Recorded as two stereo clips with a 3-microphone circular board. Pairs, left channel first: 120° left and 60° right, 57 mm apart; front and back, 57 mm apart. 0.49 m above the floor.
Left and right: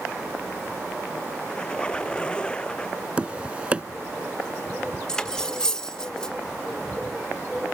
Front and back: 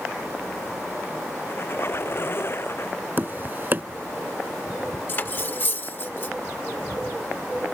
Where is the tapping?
125° right.